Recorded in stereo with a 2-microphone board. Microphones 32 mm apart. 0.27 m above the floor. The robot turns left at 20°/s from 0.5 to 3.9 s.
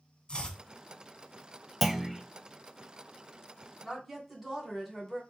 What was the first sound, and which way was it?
Chopping, 25° left (ahead or behind).